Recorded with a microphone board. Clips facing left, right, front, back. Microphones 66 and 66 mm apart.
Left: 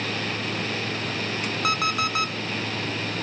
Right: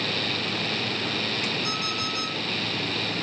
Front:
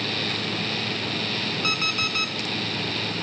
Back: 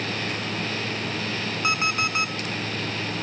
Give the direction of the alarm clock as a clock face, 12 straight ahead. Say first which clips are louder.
Left 6 dB, back 6 dB; 8 o'clock.